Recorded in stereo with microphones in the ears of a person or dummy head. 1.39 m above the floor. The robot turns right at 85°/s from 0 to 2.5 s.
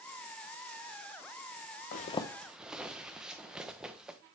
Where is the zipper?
50° left (ahead or behind), 0.6 m; by 4.2 s centre (ahead or behind), 0.6 m.